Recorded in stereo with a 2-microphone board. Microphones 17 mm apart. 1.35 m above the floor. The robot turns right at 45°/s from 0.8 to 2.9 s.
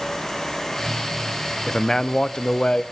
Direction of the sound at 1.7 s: 25° left.